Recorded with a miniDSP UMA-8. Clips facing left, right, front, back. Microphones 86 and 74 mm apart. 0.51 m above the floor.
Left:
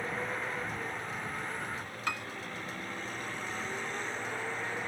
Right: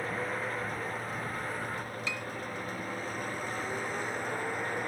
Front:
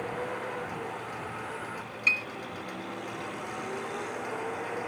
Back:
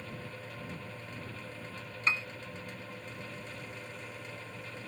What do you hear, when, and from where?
0.0 s a vehicle: 5° right; by 4.9 s 10° right
2.1 s a piano: 125° left